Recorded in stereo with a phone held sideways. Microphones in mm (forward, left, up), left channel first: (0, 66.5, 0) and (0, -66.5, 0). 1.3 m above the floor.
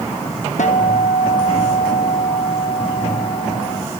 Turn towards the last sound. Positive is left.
turn(degrees=70)  # may be behind; listen again after turning